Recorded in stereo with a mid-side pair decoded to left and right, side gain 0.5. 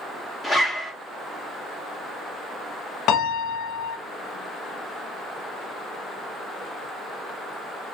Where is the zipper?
5° left, 1.2 m.